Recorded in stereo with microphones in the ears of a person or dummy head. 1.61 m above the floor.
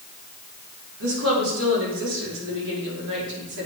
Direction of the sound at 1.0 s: 85° right.